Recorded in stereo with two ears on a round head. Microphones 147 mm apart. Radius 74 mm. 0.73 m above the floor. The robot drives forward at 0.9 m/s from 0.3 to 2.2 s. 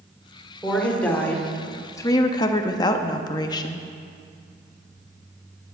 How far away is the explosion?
No explosion in this recording.